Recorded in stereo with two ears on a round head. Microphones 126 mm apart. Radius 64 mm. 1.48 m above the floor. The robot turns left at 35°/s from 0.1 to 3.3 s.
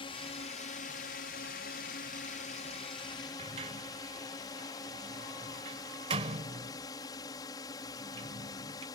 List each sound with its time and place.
0.0 s a drone: 140° left; by 9.0 s 25° left
3.4 s a sliding door: 40° right (ahead or behind)